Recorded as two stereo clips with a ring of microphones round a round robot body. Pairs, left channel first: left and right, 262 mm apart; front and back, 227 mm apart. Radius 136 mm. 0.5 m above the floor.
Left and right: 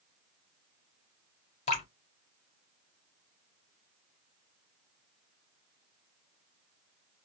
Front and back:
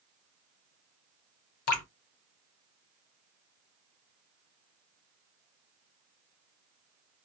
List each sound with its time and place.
1.7 s dripping: 25° left, 0.8 m